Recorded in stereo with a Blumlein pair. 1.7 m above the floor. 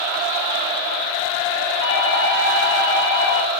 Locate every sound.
1.8 s a doorbell: 65° left, 5.5 m